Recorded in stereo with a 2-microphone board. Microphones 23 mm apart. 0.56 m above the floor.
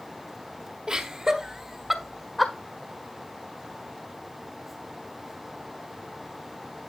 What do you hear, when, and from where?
0.9 s laughter: 35° right (ahead or behind), 1.4 m; by 2.5 s 5° left (ahead or behind), 1.5 m